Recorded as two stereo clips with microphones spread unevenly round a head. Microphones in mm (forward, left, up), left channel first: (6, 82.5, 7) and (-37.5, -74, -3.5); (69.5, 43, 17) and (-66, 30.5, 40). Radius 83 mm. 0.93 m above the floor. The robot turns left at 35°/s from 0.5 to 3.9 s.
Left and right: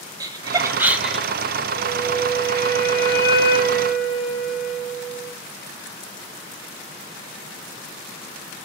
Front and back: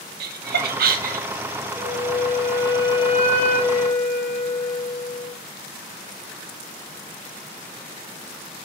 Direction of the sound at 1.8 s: 100° left.